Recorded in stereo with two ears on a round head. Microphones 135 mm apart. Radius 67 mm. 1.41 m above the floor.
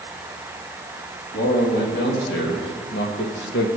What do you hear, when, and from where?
1.3 s a man speaking: 60° left (ahead or behind), 3 m; by 3.7 s 85° left, 1.9 m